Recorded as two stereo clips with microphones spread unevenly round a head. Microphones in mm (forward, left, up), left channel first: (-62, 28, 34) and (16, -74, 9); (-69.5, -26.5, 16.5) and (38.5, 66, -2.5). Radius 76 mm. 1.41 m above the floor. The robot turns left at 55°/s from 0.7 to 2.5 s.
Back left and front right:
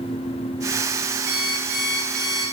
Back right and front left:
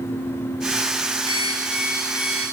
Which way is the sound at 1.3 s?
20° right.